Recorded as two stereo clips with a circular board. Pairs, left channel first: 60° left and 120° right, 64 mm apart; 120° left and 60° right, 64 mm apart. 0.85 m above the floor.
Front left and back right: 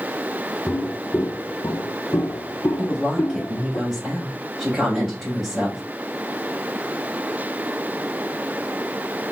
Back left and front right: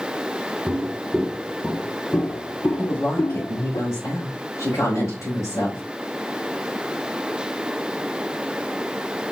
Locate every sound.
0.7 s footsteps: 5° right, 1.4 m; by 3.8 s 100° left, 2.5 m
2.8 s a woman speaking: 160° left, 4 m